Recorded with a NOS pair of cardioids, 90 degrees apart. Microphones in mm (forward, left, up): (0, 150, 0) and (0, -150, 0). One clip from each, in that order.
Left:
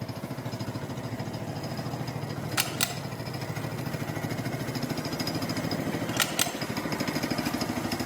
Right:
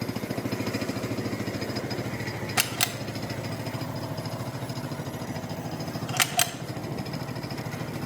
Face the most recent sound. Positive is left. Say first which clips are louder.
# right 3 dB
turn(degrees=-20)